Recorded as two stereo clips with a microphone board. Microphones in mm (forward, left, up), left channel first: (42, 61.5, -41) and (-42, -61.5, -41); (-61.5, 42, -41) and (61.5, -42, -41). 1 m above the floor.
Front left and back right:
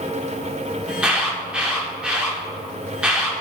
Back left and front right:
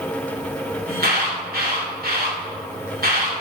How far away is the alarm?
About 2.5 m.